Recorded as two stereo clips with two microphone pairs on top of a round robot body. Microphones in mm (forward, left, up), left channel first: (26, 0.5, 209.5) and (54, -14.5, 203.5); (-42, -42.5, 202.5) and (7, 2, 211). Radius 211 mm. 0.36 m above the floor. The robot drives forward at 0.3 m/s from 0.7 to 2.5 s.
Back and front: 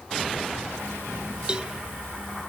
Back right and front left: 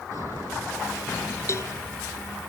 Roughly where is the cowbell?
Right.